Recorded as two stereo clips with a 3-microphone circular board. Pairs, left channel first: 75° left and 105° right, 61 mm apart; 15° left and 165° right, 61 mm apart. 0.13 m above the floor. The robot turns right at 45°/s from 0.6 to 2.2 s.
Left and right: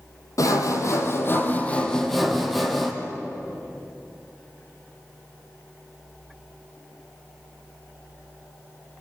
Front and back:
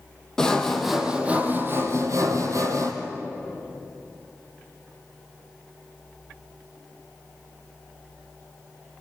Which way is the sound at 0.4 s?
95° left.